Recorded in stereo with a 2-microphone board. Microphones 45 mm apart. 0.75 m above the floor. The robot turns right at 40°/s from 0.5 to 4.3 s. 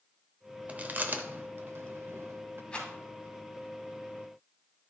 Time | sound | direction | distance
0.7 | chewing | 30° right (ahead or behind) | 0.7 m
2.7 | a rattle | 20° left (ahead or behind) | 2 m